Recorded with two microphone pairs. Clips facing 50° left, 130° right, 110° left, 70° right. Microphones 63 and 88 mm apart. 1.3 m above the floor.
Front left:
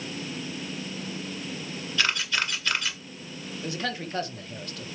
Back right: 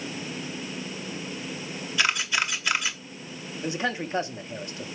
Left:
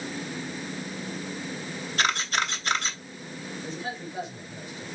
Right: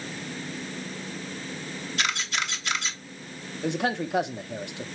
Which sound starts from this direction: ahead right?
A man speaking, at 3.6 s.